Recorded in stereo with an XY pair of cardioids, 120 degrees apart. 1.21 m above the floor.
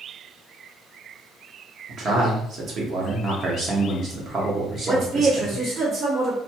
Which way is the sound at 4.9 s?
35° right.